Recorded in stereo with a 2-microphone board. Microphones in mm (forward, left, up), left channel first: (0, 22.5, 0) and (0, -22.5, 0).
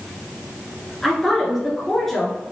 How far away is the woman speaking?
About 1.5 m.